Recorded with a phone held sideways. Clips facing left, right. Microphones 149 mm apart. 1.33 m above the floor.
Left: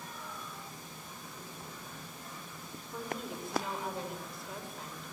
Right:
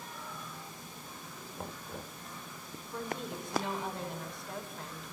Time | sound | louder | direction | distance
1.6 | knocking | right 4 dB | 70° right (ahead or behind) | 1.3 m
2.9 | a woman speaking | right 1 dB | centre (ahead or behind) | 5.5 m